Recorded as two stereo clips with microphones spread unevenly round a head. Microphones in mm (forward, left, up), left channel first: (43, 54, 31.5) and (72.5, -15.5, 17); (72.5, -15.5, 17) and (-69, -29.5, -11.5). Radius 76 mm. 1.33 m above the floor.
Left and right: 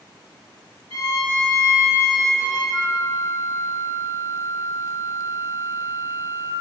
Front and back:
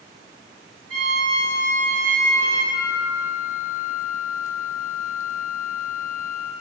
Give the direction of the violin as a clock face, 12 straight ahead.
7 o'clock.